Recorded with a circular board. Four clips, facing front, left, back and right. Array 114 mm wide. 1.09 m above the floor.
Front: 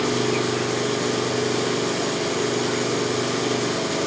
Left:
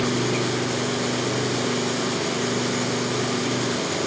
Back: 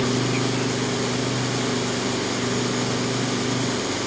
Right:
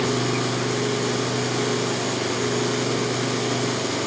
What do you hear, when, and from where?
0.0 s an engine running: straight ahead, 5.5 m